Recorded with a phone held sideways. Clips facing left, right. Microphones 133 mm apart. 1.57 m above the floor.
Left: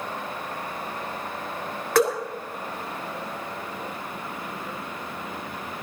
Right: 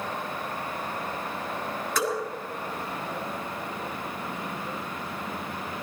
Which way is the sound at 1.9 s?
80° left.